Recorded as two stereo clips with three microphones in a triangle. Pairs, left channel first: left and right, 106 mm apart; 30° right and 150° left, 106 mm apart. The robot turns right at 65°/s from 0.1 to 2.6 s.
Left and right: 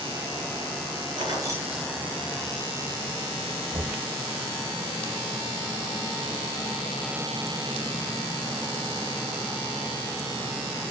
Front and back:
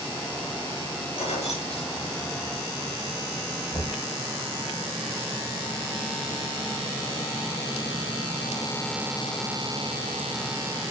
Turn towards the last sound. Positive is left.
turn(degrees=-85)